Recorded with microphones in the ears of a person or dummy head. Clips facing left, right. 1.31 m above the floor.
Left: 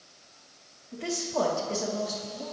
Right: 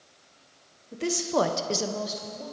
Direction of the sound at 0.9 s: 45° right (ahead or behind).